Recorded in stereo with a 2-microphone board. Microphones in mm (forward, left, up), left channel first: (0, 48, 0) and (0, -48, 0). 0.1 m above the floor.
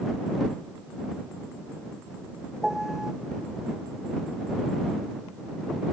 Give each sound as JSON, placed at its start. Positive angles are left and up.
{"t": 2.6, "sound": "a piano", "side_deg": -5}